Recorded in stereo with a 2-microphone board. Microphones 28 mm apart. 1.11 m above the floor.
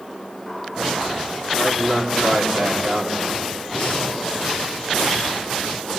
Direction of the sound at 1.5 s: 20° right (ahead or behind).